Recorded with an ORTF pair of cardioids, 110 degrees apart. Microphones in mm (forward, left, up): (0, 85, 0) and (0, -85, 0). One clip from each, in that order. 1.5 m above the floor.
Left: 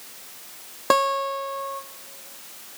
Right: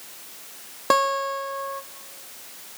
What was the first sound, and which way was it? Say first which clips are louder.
A guitar: even; 5° left.